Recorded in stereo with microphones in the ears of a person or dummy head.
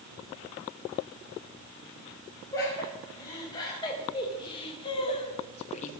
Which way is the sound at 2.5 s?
20° left (ahead or behind).